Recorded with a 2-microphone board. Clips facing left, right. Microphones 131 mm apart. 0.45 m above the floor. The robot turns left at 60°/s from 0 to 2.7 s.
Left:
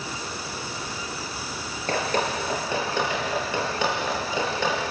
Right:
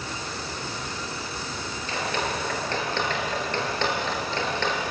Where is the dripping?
60° left (ahead or behind), 4.5 m; by 4.9 s 10° left (ahead or behind), 4.5 m.